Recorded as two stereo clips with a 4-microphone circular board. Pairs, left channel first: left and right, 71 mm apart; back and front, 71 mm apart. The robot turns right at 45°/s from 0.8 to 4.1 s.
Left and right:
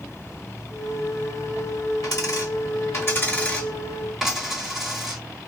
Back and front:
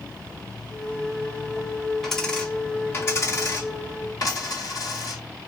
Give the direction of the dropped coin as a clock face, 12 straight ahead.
9 o'clock.